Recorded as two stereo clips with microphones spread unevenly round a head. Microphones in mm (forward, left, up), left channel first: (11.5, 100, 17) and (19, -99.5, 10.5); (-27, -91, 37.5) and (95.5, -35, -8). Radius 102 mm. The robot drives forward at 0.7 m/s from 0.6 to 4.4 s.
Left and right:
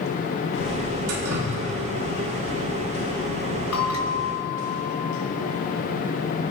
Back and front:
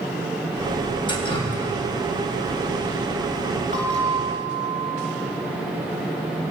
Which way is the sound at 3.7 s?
95° left.